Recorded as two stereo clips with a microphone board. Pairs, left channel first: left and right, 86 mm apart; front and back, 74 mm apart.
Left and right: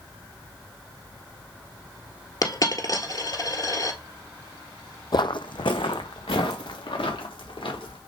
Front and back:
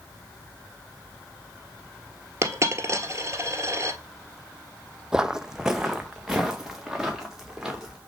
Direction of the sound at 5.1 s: 100° left.